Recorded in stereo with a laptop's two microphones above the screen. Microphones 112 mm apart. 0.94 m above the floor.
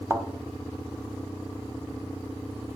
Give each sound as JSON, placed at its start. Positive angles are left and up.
{"t": 0.1, "sound": "a thud", "side_deg": -25, "distance_m": 1.6}